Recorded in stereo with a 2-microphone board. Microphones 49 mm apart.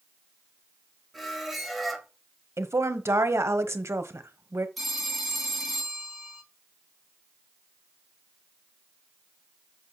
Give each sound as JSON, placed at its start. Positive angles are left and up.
{"t": 1.1, "sound": "a squeak", "side_deg": 5, "distance_m": 1.3}
{"t": 2.6, "sound": "a woman speaking", "side_deg": -75, "distance_m": 0.9}
{"t": 4.8, "sound": "a phone ringing", "side_deg": 0, "distance_m": 1.4}